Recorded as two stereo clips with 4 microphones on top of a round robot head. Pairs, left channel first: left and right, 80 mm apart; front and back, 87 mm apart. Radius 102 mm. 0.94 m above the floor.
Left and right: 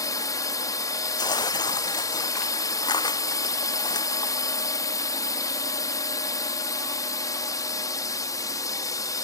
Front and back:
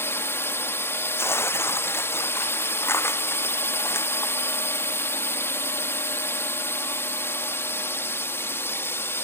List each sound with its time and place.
0.0 s a drone: 55° left
1.2 s tearing paper: 60° left